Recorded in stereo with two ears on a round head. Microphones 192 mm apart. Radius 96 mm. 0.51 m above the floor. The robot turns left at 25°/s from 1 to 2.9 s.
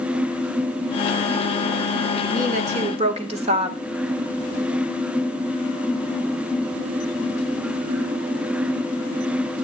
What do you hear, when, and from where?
2.3 s a woman speaking: 40° right (ahead or behind), 2 m; by 3.8 s 30° right (ahead or behind), 2 m